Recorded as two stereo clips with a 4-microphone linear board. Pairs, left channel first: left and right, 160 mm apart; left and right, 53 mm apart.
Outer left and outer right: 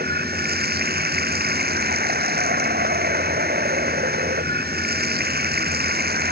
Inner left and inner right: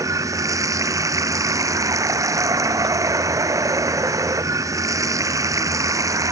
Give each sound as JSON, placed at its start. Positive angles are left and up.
{"t": 0.0, "sound": "running water", "side_deg": -80}